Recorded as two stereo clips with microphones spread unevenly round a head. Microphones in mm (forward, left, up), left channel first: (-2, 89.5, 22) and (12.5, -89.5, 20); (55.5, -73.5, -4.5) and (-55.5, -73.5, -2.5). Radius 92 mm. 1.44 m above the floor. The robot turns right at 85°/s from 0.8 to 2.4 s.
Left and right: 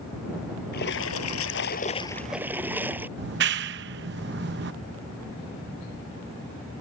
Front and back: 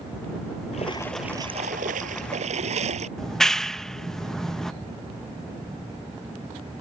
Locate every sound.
0.7 s a splash: 55° left; by 3.1 s 165° right
3.2 s a clap: 85° right